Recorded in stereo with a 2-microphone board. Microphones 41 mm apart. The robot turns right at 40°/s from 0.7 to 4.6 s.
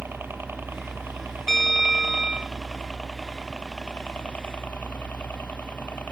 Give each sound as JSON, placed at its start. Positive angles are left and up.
{"t": 0.0, "sound": "a helicopter", "azimuth_deg": -100}
{"t": 1.5, "sound": "a bell", "azimuth_deg": 175}